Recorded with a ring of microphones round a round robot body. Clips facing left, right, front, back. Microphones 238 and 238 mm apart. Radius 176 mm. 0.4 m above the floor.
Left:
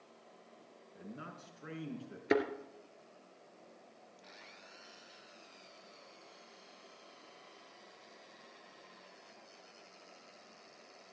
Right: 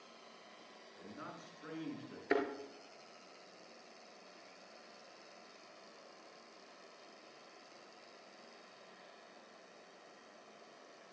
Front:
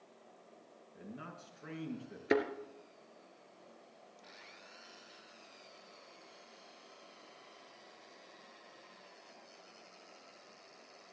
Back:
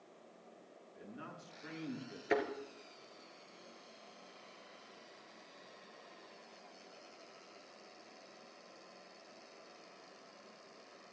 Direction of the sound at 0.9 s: 35° left.